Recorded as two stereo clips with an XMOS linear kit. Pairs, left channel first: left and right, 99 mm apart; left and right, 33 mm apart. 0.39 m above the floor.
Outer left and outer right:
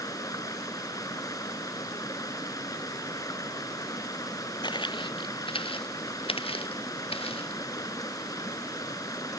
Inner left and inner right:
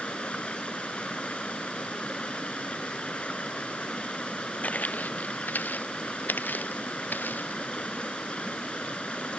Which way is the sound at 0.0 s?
35° left (ahead or behind).